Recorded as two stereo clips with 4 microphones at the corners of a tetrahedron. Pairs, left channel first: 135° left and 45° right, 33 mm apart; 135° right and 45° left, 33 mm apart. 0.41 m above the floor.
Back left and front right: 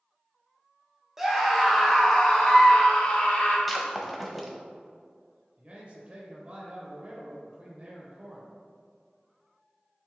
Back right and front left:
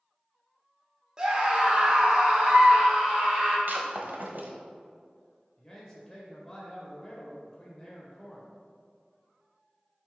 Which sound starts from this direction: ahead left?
Breaking glass, at 3.7 s.